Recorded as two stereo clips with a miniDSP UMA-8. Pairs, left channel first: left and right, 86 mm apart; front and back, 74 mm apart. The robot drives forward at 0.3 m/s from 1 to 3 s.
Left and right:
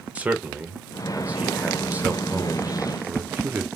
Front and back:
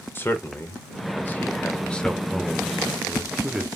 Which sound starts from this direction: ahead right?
A man speaking, at 0.1 s.